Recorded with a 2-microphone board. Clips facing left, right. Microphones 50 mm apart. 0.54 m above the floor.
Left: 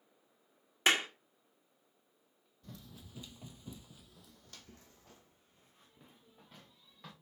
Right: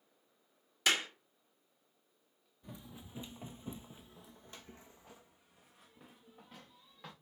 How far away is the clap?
About 1.2 m.